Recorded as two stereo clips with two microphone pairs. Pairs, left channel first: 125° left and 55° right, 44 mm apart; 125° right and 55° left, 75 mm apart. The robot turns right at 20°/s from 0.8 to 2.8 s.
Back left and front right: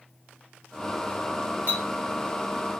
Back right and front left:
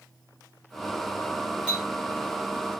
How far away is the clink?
About 2 m.